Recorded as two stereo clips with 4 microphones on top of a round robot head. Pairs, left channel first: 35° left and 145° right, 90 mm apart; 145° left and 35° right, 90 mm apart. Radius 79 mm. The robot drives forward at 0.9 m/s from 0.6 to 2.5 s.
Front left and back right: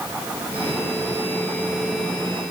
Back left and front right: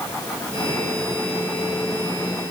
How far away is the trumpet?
I don't hear a trumpet.